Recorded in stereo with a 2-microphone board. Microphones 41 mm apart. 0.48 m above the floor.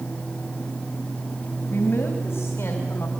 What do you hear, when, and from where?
1.7 s a woman speaking: 70° left (ahead or behind), 2.5 m; by 3.1 s 65° left (ahead or behind), 3.5 m